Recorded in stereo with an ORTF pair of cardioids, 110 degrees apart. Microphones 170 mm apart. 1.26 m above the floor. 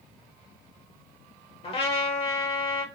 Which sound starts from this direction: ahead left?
A trumpet, at 1.6 s.